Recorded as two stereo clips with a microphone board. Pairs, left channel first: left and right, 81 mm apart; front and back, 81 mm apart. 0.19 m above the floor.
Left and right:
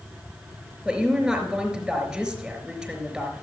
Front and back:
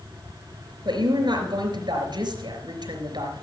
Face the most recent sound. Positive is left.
turn(degrees=-170)